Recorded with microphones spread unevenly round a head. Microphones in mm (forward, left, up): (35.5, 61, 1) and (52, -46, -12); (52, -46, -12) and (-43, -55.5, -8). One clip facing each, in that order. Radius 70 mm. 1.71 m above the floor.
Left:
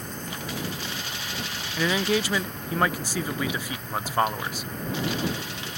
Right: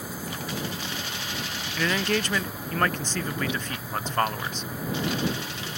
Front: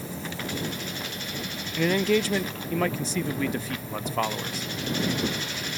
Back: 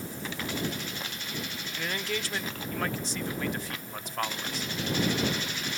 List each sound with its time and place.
0.0 s an insect: 5° left
1.8 s a man speaking: 15° left